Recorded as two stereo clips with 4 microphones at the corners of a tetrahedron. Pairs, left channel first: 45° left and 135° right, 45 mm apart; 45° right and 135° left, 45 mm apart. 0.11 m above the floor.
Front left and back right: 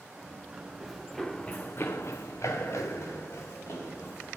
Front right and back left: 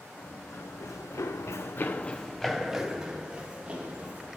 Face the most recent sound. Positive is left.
turn(degrees=70)